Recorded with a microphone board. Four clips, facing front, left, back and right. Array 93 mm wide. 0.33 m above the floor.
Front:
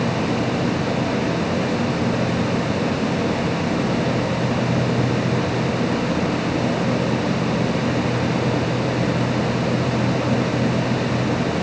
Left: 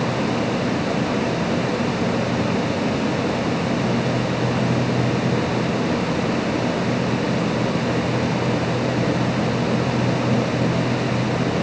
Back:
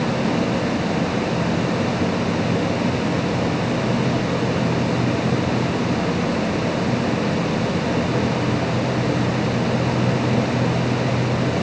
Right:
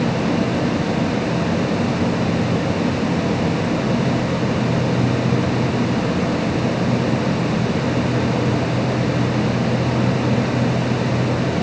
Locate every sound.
Only background noise.